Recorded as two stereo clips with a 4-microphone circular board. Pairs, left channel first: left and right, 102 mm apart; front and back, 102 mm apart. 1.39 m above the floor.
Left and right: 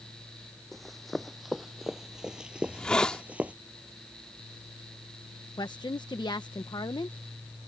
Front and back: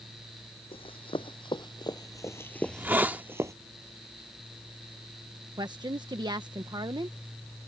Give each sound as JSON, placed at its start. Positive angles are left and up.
{"t": 0.7, "sound": "running footsteps", "azimuth_deg": 0}
{"t": 2.6, "sound": "a hiss", "azimuth_deg": 155}
{"t": 5.6, "sound": "a woman speaking", "azimuth_deg": 135}